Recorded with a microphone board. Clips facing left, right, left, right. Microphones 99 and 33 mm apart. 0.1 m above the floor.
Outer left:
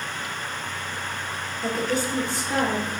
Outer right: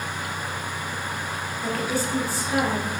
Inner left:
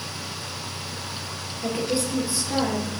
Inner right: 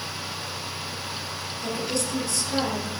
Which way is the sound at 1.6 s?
20° left (ahead or behind).